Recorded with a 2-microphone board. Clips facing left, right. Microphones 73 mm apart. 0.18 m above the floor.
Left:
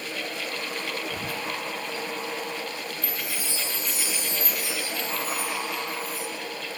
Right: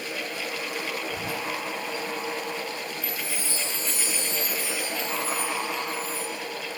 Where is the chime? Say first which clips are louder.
Even; 20° left (ahead or behind), 3.5 m.